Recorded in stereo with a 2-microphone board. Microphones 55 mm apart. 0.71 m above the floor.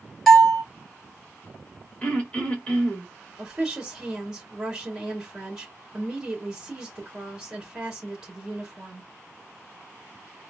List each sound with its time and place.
0.3 s a bell: 5° left (ahead or behind), 2.0 m
2.0 s throat clearing: 20° left (ahead or behind), 1.8 m
3.4 s a woman speaking: 10° right (ahead or behind), 3 m